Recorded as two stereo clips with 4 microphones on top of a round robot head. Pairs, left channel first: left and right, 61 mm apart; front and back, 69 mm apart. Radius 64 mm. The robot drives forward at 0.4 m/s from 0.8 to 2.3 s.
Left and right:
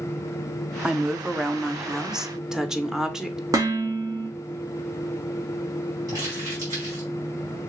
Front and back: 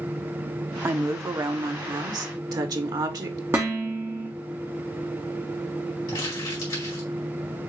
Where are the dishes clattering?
120° right, 1.4 m.